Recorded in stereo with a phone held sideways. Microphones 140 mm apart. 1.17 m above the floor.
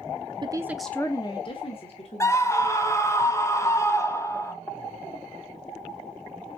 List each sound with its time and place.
0.4 s a woman speaking: 35° right (ahead or behind), 0.6 m; by 3.0 s 50° left (ahead or behind), 2 m
2.2 s a scream: 20° left (ahead or behind), 0.6 m